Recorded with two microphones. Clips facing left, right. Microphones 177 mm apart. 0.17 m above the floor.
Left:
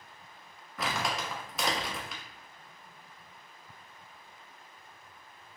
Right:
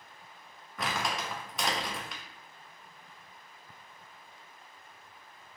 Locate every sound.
0.8 s crumpling: centre (ahead or behind), 0.9 m